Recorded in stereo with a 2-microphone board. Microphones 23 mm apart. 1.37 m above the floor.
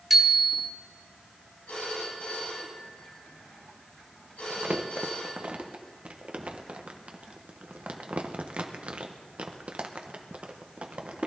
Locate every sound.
0.1 s a bicycle bell: 15° right (ahead or behind), 2 m
1.7 s a phone ringing: 80° left, 7 m
4.5 s crumpling: 75° right (ahead or behind), 1.2 m